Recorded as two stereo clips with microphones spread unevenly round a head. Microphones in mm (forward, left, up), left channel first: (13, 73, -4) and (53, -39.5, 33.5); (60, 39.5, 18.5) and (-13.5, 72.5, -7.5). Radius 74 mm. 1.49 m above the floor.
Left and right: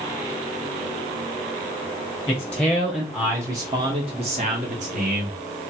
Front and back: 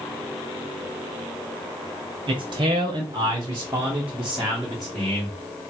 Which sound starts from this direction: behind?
A man speaking, at 2.3 s.